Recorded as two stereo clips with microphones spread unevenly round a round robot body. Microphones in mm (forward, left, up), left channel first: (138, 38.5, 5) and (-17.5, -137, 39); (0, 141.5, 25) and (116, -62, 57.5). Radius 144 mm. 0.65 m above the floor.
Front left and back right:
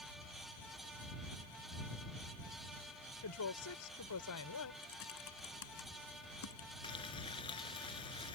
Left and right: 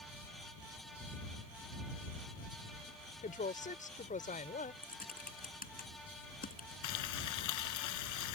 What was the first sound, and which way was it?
A woman speaking, 65° left.